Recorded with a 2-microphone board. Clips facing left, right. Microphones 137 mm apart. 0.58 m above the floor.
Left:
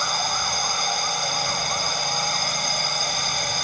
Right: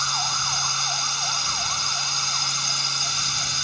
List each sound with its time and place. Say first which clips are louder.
0.0 s a drone: left 4 dB; 50° left (ahead or behind)